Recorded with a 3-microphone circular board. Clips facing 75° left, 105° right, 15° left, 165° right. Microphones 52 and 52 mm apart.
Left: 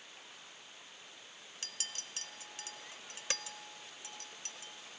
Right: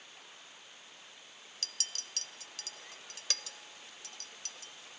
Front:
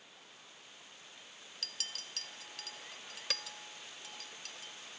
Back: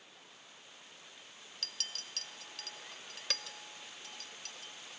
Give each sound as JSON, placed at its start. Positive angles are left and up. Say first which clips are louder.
{"t": 1.6, "sound": "a clink", "louder": "right 1 dB, even", "azimuth_deg": 100, "distance_m": 0.5}